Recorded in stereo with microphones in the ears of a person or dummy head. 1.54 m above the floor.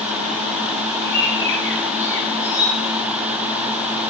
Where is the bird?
15° left (ahead or behind), 1.8 m.